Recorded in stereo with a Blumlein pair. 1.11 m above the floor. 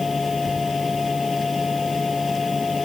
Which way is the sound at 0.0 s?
15° left.